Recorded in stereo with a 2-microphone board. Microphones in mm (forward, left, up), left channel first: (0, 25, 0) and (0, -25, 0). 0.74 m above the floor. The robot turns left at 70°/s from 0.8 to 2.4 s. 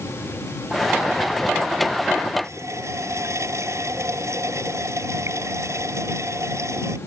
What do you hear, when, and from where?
2.4 s a running tap: 70° right (ahead or behind)